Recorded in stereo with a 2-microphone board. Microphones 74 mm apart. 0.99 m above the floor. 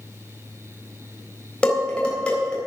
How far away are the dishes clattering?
About 3.5 m.